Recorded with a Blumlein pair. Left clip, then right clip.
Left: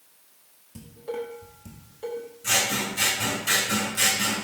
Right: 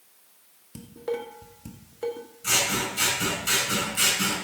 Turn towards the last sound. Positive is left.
turn(degrees=-10)